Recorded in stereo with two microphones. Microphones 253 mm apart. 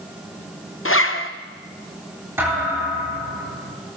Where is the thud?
10° right (ahead or behind), 9 m.